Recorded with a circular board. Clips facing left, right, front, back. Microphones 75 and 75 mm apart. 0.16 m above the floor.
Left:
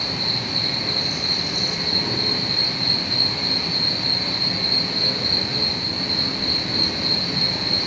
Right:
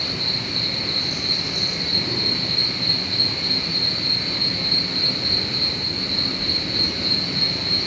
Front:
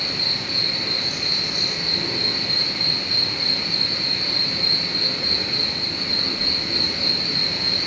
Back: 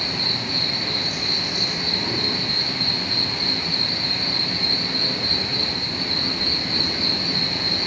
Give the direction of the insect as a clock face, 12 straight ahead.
8 o'clock.